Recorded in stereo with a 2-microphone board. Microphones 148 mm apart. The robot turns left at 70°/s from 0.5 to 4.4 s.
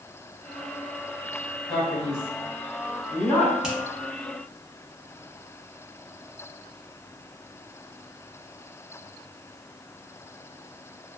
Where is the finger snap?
5° right (ahead or behind), 0.9 m; by 3.8 s centre (ahead or behind), 0.9 m.